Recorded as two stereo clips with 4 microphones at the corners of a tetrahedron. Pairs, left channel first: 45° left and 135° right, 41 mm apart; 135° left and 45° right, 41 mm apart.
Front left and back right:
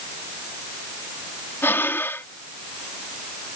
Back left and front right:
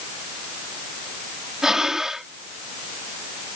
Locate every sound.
1.6 s breathing: 30° left